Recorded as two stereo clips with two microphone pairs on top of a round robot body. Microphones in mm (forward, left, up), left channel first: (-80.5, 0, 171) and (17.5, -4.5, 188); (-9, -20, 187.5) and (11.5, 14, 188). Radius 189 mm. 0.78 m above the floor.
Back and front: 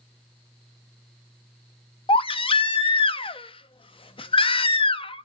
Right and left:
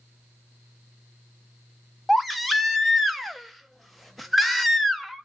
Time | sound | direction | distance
2.1 | a baby crying | 145° left | 0.6 m